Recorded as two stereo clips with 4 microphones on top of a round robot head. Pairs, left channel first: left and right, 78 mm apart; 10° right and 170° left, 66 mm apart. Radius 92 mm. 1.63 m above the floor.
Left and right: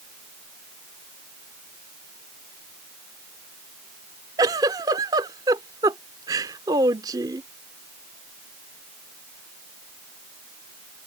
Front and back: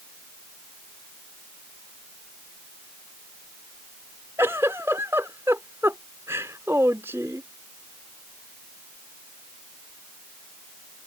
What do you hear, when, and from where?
4.4 s a giggle: 125° right